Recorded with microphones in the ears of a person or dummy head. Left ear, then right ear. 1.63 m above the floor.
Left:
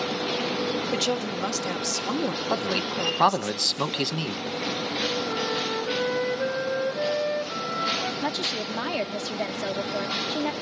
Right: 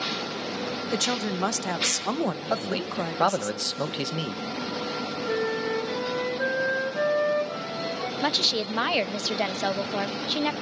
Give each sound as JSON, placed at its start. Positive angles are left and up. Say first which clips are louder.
{"t": 0.9, "sound": "a woman speaking", "louder": "left 1 dB", "side_deg": -50, "distance_m": 1.7}
{"t": 2.5, "sound": "a man speaking", "louder": "left 2 dB", "side_deg": 5, "distance_m": 1.2}
{"t": 5.3, "sound": "a flute", "louder": "even", "side_deg": -55, "distance_m": 5.5}
{"t": 8.2, "sound": "a woman speaking", "louder": "right 4 dB", "side_deg": -40, "distance_m": 0.8}